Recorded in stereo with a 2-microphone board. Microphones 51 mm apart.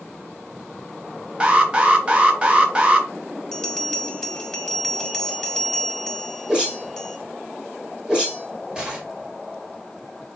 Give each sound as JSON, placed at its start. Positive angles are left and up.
{"t": 1.4, "sound": "an alarm", "side_deg": -25, "distance_m": 0.9}
{"t": 3.5, "sound": "a bell", "side_deg": 15, "distance_m": 1.0}
{"t": 6.5, "sound": "a whoosh", "side_deg": -15, "distance_m": 1.7}